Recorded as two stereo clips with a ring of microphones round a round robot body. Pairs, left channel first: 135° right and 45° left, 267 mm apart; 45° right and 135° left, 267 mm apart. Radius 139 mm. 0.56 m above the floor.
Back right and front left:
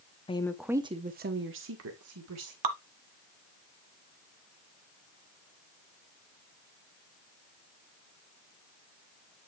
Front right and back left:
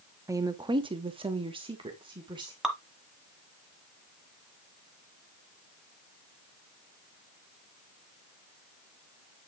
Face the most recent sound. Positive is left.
turn(degrees=45)